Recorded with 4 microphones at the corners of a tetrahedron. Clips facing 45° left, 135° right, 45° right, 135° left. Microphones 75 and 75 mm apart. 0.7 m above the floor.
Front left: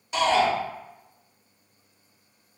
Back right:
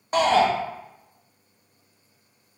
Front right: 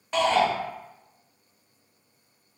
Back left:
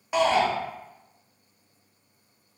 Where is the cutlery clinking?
I don't hear cutlery clinking.